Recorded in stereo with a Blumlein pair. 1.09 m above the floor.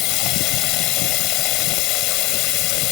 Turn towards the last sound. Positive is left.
turn(degrees=40)